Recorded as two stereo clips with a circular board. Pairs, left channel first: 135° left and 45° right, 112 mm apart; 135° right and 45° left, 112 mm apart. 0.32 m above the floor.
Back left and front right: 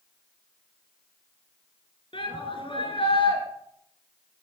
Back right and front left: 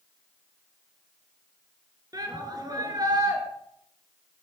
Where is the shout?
100° left, 5 m.